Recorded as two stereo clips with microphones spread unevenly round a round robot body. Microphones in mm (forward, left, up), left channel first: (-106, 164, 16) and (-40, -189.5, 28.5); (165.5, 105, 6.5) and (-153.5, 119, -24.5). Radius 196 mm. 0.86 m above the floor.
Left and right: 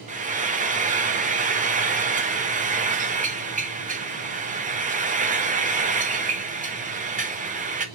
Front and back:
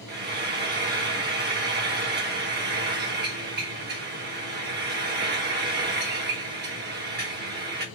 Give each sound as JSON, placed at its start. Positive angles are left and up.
{"t": 0.1, "sound": "frying", "azimuth_deg": -145, "distance_m": 1.0}